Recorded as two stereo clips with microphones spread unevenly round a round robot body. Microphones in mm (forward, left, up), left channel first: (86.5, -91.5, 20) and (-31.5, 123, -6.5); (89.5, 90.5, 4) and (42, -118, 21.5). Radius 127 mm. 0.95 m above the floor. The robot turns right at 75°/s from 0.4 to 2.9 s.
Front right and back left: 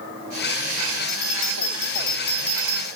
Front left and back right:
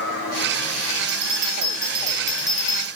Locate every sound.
1.1 s a bell: 105° right, 0.8 m; by 2.9 s 30° left, 0.8 m